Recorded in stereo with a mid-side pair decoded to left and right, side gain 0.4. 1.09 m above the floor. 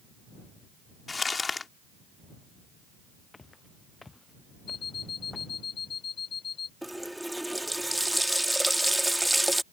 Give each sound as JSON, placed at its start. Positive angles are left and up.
{"t": 1.1, "sound": "crumpling", "azimuth_deg": 35}
{"t": 3.3, "sound": "footsteps", "azimuth_deg": 30}
{"t": 4.7, "sound": "an alarm clock", "azimuth_deg": 55}
{"t": 6.8, "sound": "a running tap", "azimuth_deg": -5}